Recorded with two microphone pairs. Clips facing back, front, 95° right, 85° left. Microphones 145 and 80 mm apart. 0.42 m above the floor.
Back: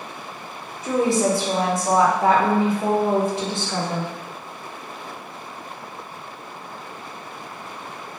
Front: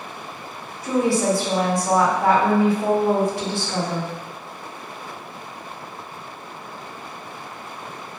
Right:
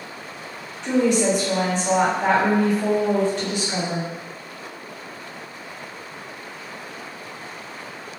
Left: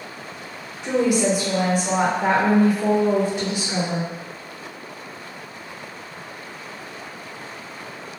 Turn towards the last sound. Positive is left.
turn(degrees=145)